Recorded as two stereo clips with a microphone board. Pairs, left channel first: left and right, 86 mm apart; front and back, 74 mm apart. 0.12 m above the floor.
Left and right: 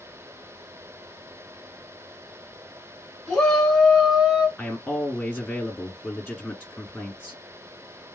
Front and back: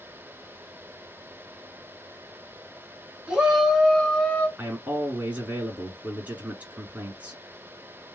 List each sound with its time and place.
3.3 s a shout: 125° left, 1.2 m; by 4.5 s 35° right, 1.2 m
4.6 s a man speaking: 140° left, 1.5 m